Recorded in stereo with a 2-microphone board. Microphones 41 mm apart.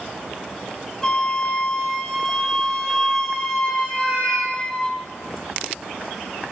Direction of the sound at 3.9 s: 60° right (ahead or behind).